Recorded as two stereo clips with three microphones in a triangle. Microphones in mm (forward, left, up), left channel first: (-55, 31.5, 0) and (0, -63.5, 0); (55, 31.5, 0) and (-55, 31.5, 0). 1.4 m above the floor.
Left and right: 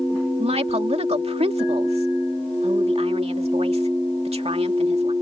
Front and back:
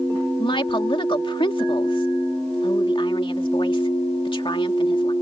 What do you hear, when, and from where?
0.4 s a woman speaking: 40° right